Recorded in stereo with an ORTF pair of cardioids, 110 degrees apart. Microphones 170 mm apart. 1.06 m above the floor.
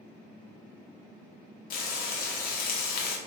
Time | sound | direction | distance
1.7 | frying | 60° left | 0.7 m